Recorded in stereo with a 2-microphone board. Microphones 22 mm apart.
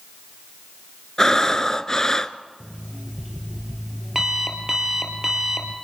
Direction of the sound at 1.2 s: 25° left (ahead or behind).